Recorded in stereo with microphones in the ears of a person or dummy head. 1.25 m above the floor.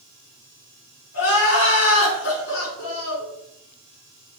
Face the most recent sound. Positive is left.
turn(degrees=60)  # may be behind; listen again after turning